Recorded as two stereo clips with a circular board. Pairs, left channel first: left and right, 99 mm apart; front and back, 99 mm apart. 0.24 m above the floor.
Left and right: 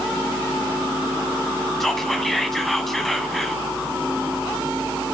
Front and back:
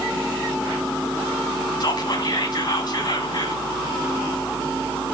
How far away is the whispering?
About 1.7 m.